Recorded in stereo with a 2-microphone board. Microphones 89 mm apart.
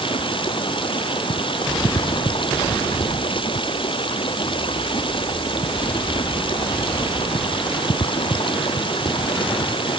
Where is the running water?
70° left (ahead or behind).